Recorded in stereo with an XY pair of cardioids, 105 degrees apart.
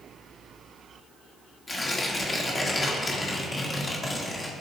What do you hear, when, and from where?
1.7 s tearing paper: 25° left, 2.5 m